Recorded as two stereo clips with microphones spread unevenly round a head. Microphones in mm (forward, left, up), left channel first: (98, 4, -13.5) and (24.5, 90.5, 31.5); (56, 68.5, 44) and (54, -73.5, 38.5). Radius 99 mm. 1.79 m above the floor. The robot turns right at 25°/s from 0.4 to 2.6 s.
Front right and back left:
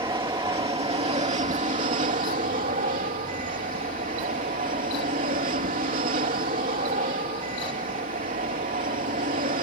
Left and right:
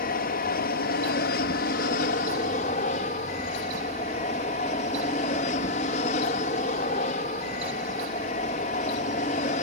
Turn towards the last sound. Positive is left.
turn(degrees=135)